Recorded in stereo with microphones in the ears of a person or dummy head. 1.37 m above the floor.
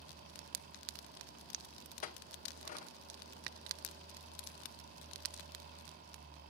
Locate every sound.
2.0 s a clink: 40° left (ahead or behind), 0.8 m